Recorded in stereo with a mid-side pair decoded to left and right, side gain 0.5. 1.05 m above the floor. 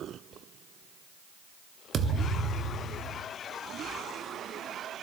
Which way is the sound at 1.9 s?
50° right.